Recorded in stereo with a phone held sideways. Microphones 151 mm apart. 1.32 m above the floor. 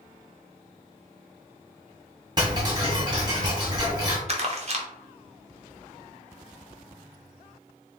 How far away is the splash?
No splash in this recording.